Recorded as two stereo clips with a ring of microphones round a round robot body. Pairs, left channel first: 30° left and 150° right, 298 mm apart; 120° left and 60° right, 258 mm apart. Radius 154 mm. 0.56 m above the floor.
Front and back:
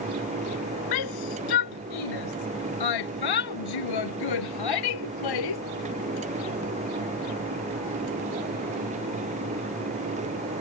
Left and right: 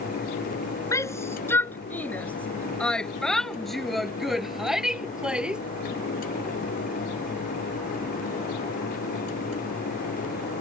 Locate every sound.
0.9 s a shout: 40° left; by 5.6 s 25° left